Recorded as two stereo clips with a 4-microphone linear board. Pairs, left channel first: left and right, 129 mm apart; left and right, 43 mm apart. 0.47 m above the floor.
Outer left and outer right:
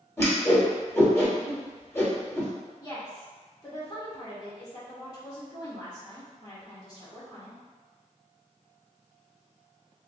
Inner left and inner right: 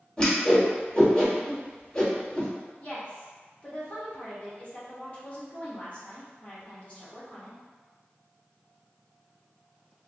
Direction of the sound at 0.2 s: 20° left (ahead or behind).